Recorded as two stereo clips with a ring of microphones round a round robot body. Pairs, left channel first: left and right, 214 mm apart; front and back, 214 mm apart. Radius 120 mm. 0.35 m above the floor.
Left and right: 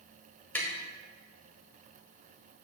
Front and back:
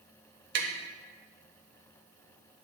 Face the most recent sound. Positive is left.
turn(degrees=170)